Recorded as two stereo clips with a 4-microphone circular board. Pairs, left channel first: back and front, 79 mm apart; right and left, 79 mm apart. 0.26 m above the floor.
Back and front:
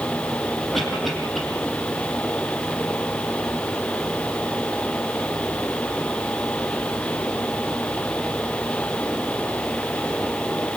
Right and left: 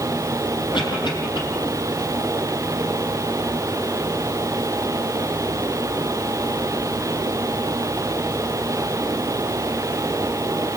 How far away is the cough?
About 9 m.